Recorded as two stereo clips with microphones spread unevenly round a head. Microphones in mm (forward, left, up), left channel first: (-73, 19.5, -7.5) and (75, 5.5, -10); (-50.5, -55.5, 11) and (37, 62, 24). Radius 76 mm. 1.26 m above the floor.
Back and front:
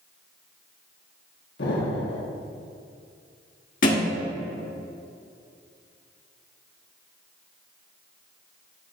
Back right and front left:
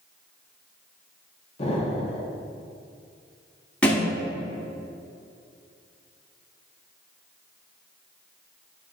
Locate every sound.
1.6 s an explosion: straight behind, 1.4 m
3.8 s a thud: 150° left, 1.4 m